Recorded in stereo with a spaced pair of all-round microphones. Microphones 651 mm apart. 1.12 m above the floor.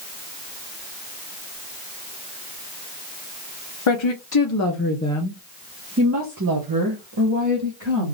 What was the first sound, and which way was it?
A woman speaking, 50° left (ahead or behind).